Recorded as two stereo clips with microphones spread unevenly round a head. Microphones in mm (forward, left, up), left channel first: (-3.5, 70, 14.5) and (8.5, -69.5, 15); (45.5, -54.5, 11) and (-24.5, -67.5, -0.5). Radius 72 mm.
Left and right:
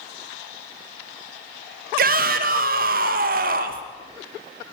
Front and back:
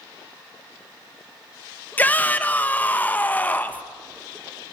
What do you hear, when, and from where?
2.0 s a shout: 55° right, 2 m